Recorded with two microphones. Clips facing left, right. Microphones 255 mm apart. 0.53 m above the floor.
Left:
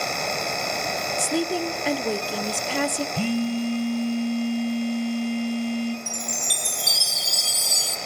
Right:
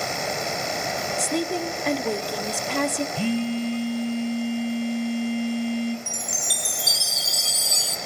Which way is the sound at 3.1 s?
55° left (ahead or behind).